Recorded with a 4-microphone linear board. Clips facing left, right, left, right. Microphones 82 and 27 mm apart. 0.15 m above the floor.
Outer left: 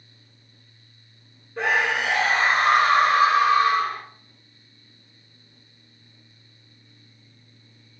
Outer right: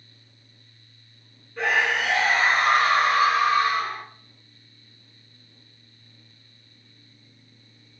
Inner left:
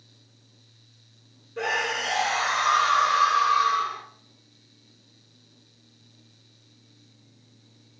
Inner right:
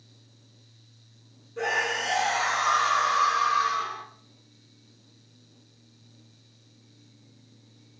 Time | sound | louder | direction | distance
1.6 | a scream | even, even | 20° left (ahead or behind) | 1.0 m